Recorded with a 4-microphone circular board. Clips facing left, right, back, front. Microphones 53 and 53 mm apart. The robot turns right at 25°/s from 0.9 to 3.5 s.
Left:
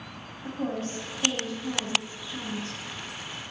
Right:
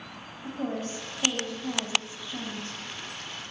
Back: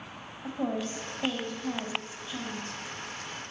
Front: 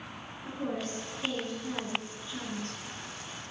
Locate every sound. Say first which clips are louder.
0.4 s a woman speaking: left 1 dB, back 3 dB; 155° right, 4 m; by 2.8 s 105° right, 4 m